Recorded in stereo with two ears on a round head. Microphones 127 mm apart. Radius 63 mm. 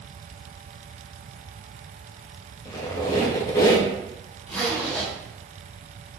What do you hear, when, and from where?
2.6 s a squeak: 20° left (ahead or behind), 0.7 m
4.5 s a zipper: 10° left (ahead or behind), 1.7 m